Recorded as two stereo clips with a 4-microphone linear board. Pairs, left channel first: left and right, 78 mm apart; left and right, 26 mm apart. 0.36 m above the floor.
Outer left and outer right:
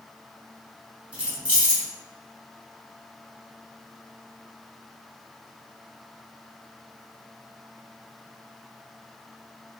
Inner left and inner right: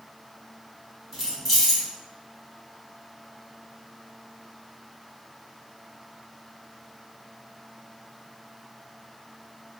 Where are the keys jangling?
15° right (ahead or behind), 1.9 m.